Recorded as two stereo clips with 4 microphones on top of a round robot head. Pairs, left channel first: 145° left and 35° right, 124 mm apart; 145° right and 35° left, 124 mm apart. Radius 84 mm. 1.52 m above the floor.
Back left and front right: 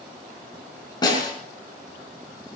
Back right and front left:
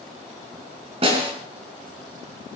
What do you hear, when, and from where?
1.0 s a snare drum: 85° left, 5.5 m